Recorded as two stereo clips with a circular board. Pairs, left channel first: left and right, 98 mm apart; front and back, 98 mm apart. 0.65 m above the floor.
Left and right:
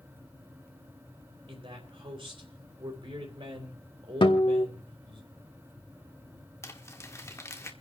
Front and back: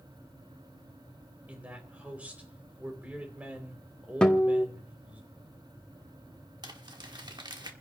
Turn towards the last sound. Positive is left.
turn(degrees=145)